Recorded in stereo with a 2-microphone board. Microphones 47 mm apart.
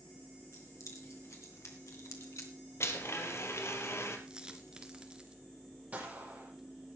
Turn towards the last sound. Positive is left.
turn(degrees=-30)  # may be behind; listen again after turning